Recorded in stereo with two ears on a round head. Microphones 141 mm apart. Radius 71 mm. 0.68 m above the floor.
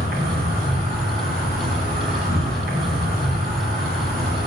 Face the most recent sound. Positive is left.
turn(degrees=-60)  # may be behind; listen again after turning